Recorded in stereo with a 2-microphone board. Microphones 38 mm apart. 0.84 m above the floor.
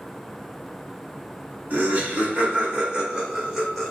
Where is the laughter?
45° right (ahead or behind), 1.5 m; by 3.9 s centre (ahead or behind), 1.6 m.